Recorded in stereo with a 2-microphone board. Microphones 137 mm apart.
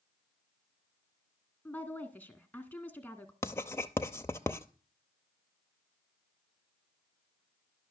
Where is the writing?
20° left (ahead or behind), 0.6 m.